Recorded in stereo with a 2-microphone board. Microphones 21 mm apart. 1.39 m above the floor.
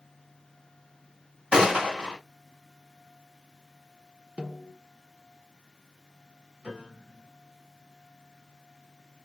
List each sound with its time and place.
1.5 s a gunshot: 50° right (ahead or behind), 1.7 m
4.4 s a snare drum: 65° right (ahead or behind), 1.1 m
6.6 s a piano: 50° right (ahead or behind), 2 m